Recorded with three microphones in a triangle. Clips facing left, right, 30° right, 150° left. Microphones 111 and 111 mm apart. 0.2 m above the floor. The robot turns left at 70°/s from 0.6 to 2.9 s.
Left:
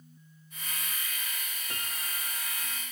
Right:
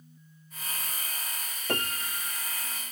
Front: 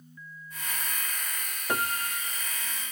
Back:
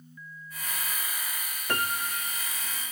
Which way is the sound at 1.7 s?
110° right.